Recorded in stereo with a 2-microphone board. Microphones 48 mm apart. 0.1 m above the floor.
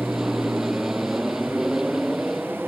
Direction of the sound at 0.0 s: 10° right (ahead or behind).